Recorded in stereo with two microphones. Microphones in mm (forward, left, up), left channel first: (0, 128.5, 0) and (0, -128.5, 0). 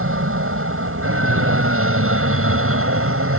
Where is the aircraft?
55° right (ahead or behind).